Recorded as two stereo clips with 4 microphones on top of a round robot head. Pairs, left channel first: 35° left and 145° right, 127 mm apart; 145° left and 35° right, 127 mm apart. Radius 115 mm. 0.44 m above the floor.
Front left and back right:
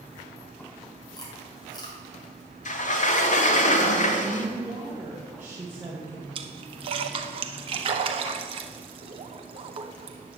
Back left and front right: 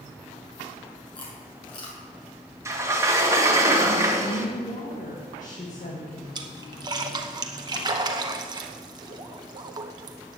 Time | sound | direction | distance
1.1 | chewing | 95° left | 3.5 m
2.6 | a sliding door | 30° left | 1.6 m
4.2 | a woman speaking | 145° left | 2 m
6.3 | a splash | 95° right | 0.7 m